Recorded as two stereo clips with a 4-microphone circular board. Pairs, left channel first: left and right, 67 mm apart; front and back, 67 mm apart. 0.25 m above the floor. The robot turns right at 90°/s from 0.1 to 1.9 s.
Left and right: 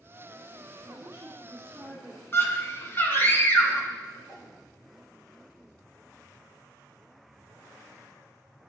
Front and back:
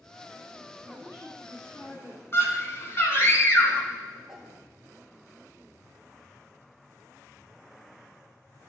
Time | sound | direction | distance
0.8 | a woman speaking | 115° right | 3.5 m
2.3 | a scream | 40° left | 2.5 m
4.3 | a whoosh | 100° left | 2 m